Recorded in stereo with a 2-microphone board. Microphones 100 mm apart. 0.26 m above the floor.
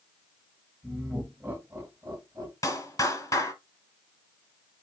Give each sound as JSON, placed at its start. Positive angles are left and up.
{"t": 0.8, "sound": "laughter", "side_deg": -5, "distance_m": 1.1}
{"t": 2.6, "sound": "a clap", "side_deg": 35, "distance_m": 1.1}